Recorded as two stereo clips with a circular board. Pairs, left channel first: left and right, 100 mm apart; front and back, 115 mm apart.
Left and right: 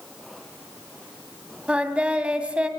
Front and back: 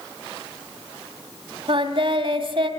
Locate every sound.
1.7 s singing: 165° right, 1.8 m